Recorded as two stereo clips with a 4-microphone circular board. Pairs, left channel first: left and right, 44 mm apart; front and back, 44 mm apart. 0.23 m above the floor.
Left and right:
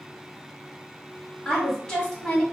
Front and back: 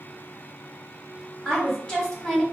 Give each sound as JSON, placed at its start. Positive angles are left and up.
{"t": 1.4, "sound": "a woman speaking", "azimuth_deg": 30, "distance_m": 1.2}